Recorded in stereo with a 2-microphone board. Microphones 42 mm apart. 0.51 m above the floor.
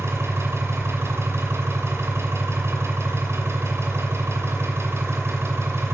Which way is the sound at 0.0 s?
85° right.